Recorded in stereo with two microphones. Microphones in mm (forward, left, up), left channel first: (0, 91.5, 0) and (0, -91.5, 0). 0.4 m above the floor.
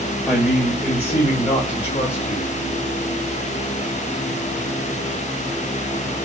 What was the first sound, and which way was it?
A man speaking, centre (ahead or behind).